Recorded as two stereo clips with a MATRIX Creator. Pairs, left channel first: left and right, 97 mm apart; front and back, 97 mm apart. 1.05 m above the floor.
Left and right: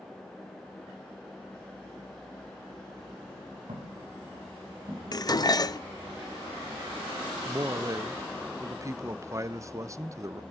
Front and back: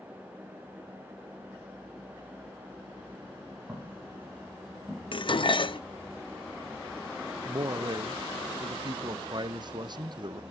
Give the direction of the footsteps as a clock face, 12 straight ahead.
3 o'clock.